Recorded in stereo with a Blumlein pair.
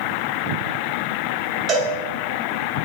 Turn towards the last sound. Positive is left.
turn(degrees=-25)